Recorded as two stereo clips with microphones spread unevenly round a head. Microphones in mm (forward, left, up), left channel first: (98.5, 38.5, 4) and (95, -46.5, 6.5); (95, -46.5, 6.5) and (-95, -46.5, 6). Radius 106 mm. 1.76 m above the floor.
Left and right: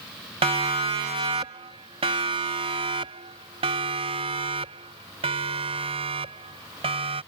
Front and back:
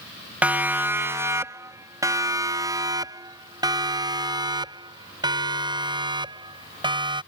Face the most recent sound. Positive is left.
turn(degrees=-115)